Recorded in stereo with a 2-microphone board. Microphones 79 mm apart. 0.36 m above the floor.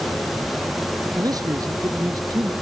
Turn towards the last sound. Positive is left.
turn(degrees=-50)  # may be behind; listen again after turning